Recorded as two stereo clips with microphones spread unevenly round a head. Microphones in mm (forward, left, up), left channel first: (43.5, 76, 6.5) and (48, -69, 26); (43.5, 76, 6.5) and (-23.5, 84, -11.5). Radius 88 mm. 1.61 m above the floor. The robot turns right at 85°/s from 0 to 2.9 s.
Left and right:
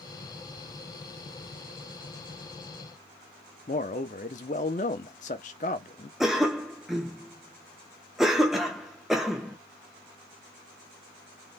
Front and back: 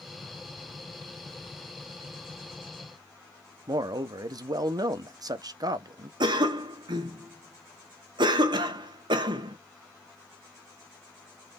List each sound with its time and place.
3.7 s a man speaking: 145° left, 0.7 m
6.2 s a cough: 170° right, 0.9 m